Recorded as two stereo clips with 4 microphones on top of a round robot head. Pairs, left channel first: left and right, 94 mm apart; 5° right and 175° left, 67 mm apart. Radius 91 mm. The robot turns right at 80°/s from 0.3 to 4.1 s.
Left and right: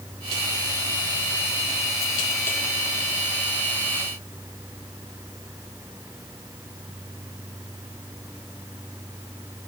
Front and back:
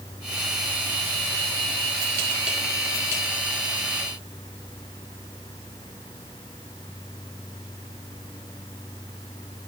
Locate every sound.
Only background noise.